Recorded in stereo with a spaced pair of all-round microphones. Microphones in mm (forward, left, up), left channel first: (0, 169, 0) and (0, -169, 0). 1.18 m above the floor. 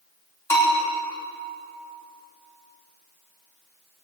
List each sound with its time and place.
0.5 s a bell: 10° left (ahead or behind), 5 m